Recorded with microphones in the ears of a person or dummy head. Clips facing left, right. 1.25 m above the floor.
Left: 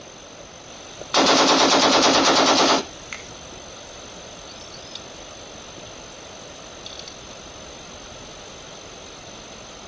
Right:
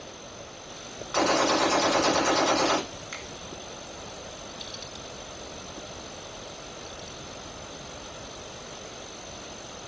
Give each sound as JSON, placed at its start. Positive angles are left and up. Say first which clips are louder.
{"t": 1.1, "sound": "a gunshot", "louder": "left 6 dB", "side_deg": 65, "distance_m": 0.7}
{"t": 3.1, "sound": "a finger snap", "louder": "left 1 dB", "side_deg": 35, "distance_m": 1.2}